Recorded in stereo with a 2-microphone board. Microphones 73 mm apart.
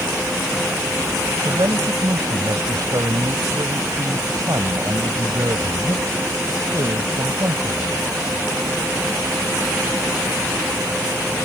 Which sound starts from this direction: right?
A man speaking, at 1.4 s.